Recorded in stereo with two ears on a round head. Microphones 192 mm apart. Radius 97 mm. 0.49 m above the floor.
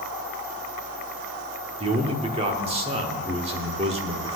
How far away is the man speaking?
About 1.3 m.